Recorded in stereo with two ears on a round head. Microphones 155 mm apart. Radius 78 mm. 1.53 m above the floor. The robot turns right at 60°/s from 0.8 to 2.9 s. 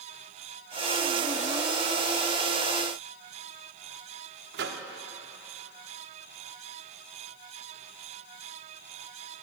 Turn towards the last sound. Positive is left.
turn(degrees=-70)  # may be behind; listen again after turning